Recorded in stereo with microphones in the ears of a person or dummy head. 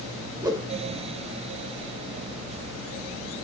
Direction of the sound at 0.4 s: 20° right (ahead or behind).